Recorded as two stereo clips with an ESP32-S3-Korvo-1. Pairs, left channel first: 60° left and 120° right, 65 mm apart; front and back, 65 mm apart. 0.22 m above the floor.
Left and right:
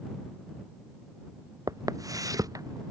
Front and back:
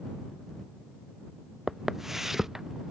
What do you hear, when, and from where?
1.7 s footsteps: 95° right